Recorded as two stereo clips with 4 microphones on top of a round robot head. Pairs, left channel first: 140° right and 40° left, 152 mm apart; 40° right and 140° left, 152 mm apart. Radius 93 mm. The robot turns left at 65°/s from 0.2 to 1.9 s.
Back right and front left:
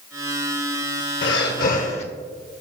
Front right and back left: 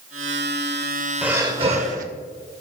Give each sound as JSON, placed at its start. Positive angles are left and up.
{"t": 1.2, "sound": "breathing", "azimuth_deg": -140, "distance_m": 0.6}